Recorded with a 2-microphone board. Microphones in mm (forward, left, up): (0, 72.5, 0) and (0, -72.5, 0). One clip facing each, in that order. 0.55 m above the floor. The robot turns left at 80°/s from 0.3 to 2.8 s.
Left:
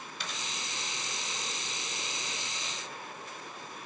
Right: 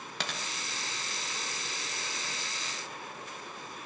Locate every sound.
0.2 s a dropped coin: 85° right, 1.4 m; by 0.5 s 70° right (ahead or behind), 1.4 m